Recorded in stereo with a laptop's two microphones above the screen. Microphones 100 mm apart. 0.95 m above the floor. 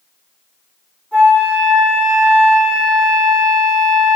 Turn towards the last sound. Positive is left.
turn(degrees=15)  # may be behind; listen again after turning